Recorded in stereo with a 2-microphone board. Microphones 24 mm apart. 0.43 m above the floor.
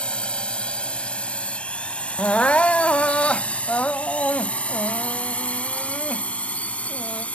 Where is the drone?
50° left (ahead or behind); by 7.4 s 70° left (ahead or behind).